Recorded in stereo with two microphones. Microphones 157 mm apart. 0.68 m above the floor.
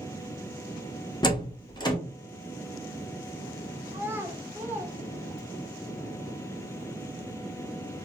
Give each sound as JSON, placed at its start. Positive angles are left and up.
{"t": 1.2, "sound": "a door slam", "side_deg": 25, "distance_m": 0.7}
{"t": 3.9, "sound": "a child speaking", "side_deg": -15, "distance_m": 0.7}